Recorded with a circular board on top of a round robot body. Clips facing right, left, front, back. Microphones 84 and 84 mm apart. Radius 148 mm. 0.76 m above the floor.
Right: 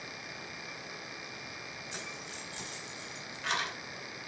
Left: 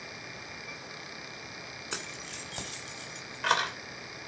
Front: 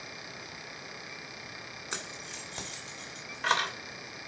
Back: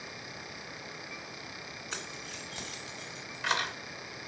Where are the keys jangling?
70° left, 3 m; by 3.7 s 50° left, 3 m.